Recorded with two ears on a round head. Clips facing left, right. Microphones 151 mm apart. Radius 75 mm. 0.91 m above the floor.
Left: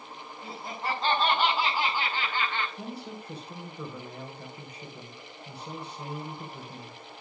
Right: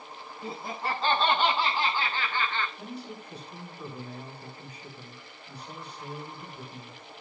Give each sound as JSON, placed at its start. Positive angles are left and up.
{"t": 0.4, "sound": "laughter", "side_deg": -5, "distance_m": 5.5}
{"t": 2.8, "sound": "a man speaking", "side_deg": 55, "distance_m": 4.5}